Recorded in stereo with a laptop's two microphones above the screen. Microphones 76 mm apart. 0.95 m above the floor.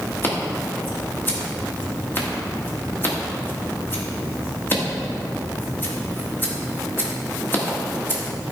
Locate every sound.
0.2 s scissors: 25° left (ahead or behind), 1.7 m